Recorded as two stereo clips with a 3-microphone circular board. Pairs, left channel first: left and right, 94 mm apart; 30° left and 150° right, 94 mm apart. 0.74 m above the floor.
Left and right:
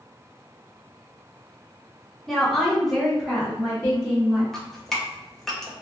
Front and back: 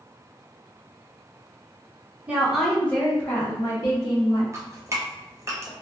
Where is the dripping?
175° left, 0.7 m.